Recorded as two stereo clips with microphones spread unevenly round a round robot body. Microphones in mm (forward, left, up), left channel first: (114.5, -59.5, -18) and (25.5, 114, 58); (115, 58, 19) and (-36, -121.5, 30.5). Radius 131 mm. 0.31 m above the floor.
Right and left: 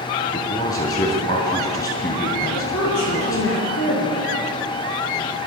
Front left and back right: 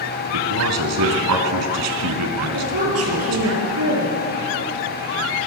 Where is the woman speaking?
110° right, 7 m.